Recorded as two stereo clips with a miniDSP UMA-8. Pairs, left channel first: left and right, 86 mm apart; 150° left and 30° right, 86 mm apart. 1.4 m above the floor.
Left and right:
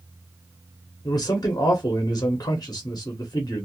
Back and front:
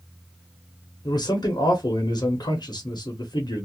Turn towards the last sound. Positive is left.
turn(degrees=125)